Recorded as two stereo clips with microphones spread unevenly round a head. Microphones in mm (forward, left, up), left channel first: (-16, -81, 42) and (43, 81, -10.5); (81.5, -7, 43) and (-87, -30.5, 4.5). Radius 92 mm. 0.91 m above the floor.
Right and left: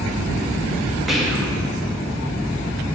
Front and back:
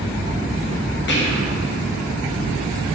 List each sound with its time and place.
1.1 s whispering: 10° right, 1.1 m